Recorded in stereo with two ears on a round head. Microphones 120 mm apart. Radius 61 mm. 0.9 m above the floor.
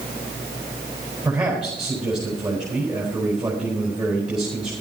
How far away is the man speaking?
About 4.5 m.